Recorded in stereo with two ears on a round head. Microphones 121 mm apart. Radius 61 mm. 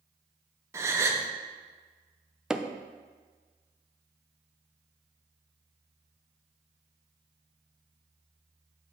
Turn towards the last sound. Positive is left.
turn(degrees=-5)  # may be behind; listen again after turning